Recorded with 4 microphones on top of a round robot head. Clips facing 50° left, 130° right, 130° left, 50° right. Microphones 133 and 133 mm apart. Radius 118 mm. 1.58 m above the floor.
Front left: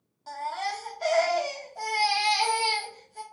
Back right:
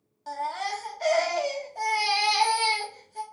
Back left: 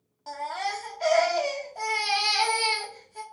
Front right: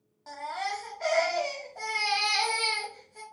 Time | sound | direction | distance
0.3 | a baby crying | 160° right | 0.5 m